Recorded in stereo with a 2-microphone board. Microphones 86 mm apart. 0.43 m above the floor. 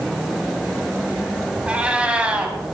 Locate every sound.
1.7 s a cat meowing: 15° right (ahead or behind), 1.7 m